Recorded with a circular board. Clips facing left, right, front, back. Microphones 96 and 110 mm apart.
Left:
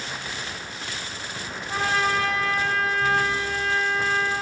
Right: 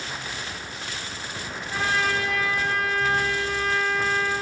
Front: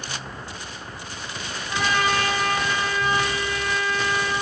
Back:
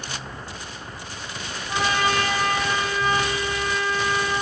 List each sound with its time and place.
1.7 s a trumpet: 120° left, 1.8 m